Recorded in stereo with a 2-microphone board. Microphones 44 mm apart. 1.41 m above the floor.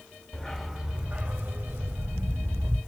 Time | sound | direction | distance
0.3 | a dog barking | 15° left (ahead or behind) | 1.2 m